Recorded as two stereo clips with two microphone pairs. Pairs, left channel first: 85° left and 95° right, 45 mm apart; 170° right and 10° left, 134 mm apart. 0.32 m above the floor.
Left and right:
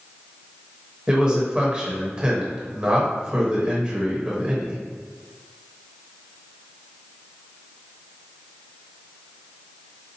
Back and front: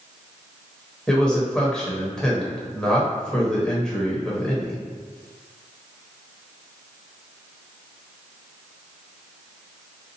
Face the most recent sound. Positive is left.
turn(degrees=-95)